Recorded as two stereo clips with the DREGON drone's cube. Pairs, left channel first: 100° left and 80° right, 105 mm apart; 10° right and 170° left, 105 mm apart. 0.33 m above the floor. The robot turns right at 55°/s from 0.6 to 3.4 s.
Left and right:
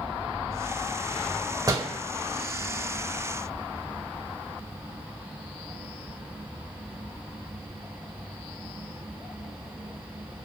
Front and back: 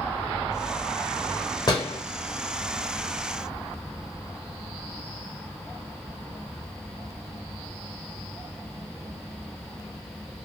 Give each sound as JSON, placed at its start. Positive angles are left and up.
{"t": 1.7, "sound": "a door slam", "azimuth_deg": -40, "distance_m": 0.8}